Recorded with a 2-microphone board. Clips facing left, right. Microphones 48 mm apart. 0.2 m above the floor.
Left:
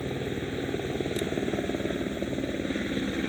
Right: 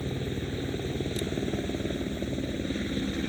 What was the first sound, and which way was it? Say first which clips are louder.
A helicopter: left 2 dB; 25° left (ahead or behind).